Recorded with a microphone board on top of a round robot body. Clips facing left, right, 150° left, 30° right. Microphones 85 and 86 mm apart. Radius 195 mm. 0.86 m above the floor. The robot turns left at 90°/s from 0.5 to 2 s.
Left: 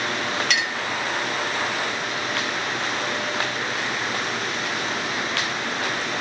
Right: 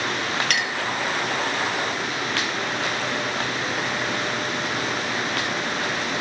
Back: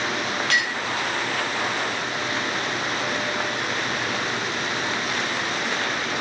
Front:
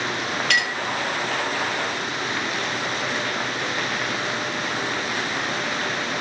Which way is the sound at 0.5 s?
50° right.